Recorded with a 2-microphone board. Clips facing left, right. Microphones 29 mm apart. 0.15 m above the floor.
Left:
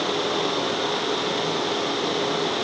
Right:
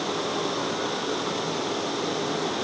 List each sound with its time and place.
Only background noise.